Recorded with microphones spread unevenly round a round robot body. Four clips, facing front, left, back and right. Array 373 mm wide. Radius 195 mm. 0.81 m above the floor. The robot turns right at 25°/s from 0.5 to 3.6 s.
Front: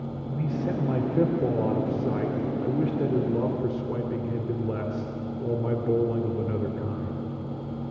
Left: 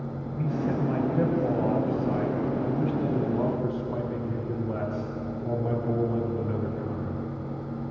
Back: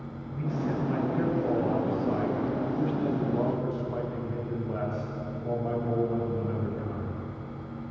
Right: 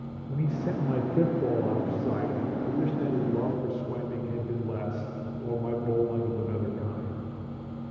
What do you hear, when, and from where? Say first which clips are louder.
0.3 s a man speaking: left 2 dB, front 2 dB; 70° right, 3 m; by 7.2 s 5° left, 3 m